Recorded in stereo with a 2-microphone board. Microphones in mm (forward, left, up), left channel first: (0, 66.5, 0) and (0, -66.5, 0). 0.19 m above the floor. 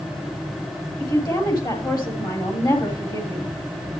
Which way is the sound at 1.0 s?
30° left (ahead or behind).